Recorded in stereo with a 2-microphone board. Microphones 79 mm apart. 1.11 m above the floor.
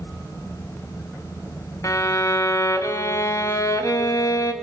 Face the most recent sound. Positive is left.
turn(degrees=40)  # may be behind; listen again after turning